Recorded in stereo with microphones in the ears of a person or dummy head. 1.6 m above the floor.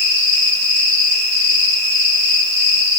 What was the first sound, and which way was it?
An insect, 60° right (ahead or behind).